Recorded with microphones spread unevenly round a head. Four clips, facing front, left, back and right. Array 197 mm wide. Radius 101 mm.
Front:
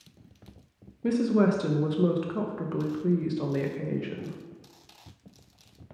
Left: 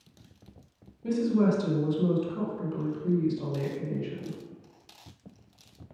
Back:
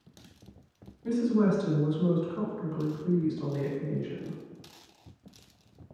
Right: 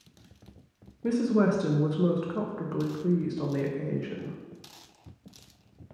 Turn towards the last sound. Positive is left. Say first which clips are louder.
# right 1 dB, front 2 dB
turn(degrees=-30)